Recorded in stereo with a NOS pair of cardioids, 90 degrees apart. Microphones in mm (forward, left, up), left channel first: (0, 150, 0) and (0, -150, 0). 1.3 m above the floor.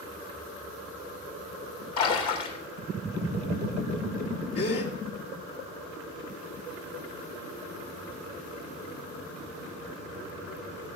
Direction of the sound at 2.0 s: 70° left.